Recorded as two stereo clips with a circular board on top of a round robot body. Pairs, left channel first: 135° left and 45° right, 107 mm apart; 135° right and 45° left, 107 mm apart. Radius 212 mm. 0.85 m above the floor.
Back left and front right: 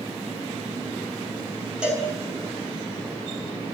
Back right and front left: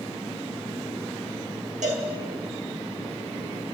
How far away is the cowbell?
About 5 m.